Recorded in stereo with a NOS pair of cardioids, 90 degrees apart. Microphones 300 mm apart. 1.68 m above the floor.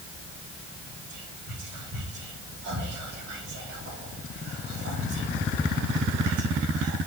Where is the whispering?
70° right, 5 m.